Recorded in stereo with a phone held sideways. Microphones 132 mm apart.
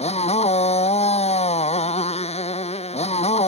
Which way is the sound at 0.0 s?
50° left (ahead or behind).